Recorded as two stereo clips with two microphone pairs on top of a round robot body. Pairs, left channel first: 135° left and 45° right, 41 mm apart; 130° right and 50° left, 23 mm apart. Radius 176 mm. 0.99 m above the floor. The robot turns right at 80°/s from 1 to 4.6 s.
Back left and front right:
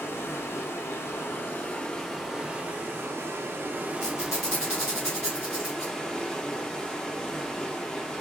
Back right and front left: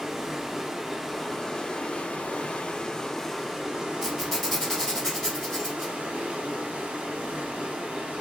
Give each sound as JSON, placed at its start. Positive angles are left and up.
{"t": 0.0, "sound": "running water", "azimuth_deg": 135, "distance_m": 0.8}
{"t": 4.0, "sound": "a squeak", "azimuth_deg": 115, "distance_m": 1.2}